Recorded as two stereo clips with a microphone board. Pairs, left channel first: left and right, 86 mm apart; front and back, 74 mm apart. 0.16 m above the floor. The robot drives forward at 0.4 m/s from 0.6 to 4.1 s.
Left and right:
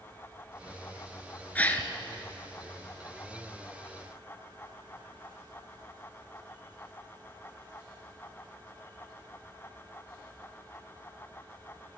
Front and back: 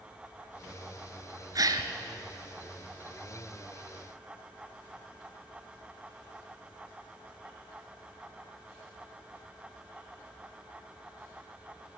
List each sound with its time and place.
1.6 s a gasp: 160° left, 0.9 m